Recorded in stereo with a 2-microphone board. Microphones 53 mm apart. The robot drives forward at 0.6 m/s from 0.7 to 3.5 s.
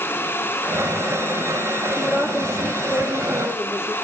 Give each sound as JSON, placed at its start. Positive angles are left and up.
{"t": 2.0, "sound": "a woman speaking", "side_deg": -25, "distance_m": 4.0}